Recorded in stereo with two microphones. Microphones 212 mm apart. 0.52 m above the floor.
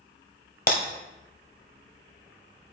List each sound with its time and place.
0.7 s breaking glass: 45° left (ahead or behind), 0.8 m